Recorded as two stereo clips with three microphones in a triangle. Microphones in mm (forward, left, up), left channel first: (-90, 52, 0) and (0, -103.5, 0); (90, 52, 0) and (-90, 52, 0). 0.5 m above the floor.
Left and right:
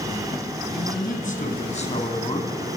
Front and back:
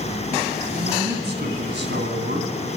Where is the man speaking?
155° left, 4 m; by 2.5 s 175° right, 3 m.